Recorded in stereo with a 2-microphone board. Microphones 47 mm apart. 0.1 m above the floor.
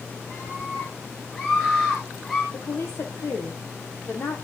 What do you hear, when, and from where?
0.3 s a scream: 35° left (ahead or behind), 7 m; by 2.4 s 15° left (ahead or behind), 7.5 m
2.5 s a woman speaking: 60° left (ahead or behind), 3.5 m